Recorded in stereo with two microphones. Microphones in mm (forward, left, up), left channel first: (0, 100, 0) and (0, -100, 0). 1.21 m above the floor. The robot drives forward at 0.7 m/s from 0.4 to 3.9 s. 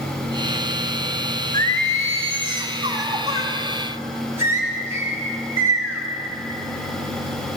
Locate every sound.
1.5 s singing: 45° right (ahead or behind), 0.7 m; by 6.0 s 15° right (ahead or behind), 2 m